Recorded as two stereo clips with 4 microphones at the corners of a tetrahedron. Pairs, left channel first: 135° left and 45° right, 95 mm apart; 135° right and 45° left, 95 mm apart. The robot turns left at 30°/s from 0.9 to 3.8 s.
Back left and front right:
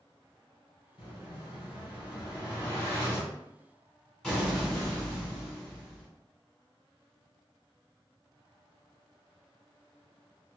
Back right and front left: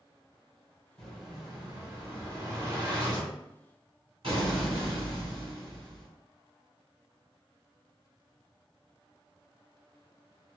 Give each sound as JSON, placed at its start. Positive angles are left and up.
{"t": 1.0, "sound": "an explosion", "azimuth_deg": 135, "distance_m": 1.5}